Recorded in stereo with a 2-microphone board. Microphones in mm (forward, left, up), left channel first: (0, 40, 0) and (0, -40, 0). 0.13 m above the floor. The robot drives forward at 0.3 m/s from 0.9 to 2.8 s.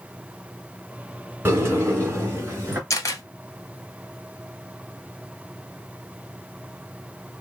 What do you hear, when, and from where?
1.4 s a sliding door: 30° right (ahead or behind), 1.8 m
2.9 s a camera shutter: 40° left (ahead or behind), 1.2 m